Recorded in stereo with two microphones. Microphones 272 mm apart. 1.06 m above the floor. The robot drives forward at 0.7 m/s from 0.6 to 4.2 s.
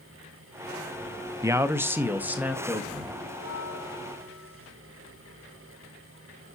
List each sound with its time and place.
1.4 s a man speaking: 10° right (ahead or behind), 0.6 m; by 3.1 s 5° right (ahead or behind), 1.8 m
3.3 s a bell: 75° left (ahead or behind), 6 m; by 4.7 s 70° left (ahead or behind), 6 m